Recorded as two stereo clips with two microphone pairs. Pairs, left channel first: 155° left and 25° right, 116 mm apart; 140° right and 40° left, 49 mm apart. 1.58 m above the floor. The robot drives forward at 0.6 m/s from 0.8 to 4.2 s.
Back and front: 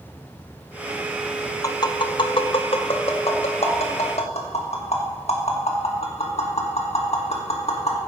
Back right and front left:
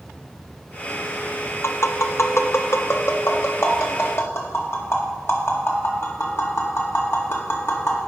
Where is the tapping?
145° right, 0.5 m; by 8.0 s 175° right, 1.9 m.